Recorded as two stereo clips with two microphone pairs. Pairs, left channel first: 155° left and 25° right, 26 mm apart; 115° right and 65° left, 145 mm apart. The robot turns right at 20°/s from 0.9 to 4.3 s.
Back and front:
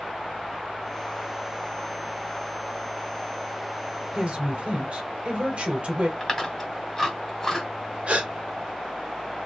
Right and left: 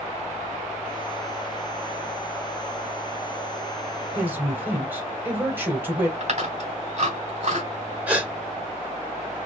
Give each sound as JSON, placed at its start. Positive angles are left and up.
{"t": 4.2, "sound": "a woman speaking", "azimuth_deg": -10, "distance_m": 1.7}
{"t": 6.2, "sound": "chewing", "azimuth_deg": 85, "distance_m": 1.7}
{"t": 8.1, "sound": "a gasp", "azimuth_deg": -10, "distance_m": 1.3}